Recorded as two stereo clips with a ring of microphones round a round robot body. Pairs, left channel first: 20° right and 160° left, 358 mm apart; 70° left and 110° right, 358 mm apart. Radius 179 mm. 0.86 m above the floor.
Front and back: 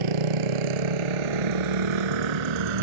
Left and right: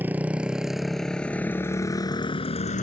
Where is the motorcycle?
160° left; by 2.8 s 140° left.